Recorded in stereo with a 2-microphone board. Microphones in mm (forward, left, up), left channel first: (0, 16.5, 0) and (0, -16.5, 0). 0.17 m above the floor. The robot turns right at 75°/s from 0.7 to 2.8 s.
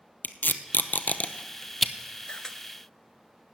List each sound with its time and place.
0.2 s tape being pulled: 85° left, 0.7 m; by 1.9 s 5° right (ahead or behind), 0.7 m
2.3 s a camera shutter: 35° left (ahead or behind), 0.7 m; by 2.6 s 15° left (ahead or behind), 0.7 m